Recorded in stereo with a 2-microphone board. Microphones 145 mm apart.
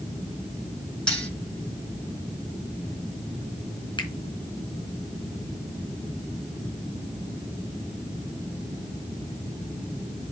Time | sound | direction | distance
1.1 | cutlery clinking | 5° left (ahead or behind) | 7.5 m
4.0 | a finger snap | 35° left (ahead or behind) | 3.5 m